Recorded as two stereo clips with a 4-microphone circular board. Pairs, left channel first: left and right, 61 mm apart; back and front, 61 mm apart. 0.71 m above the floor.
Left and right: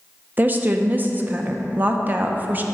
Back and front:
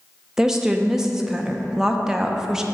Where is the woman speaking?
75° right, 0.5 m.